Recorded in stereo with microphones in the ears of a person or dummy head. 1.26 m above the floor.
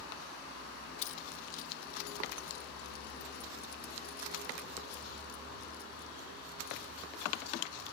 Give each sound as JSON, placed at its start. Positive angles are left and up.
{"t": 1.0, "sound": "keys jangling", "side_deg": 40}